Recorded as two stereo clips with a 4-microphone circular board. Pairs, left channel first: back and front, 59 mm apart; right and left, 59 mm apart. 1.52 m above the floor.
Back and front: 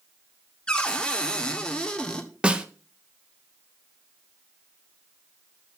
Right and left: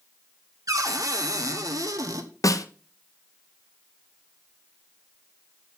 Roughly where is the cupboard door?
Left.